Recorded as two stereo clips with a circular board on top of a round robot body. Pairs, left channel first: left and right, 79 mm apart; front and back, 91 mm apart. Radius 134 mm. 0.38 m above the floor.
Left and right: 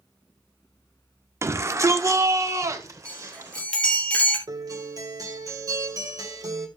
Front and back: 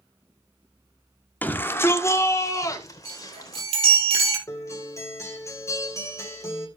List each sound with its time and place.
1.4 s a shout: 60° right, 1.7 m; by 3.7 s 45° right, 3.5 m
3.0 s a chime: 165° left, 3.5 m
4.5 s a guitar: 55° right, 3 m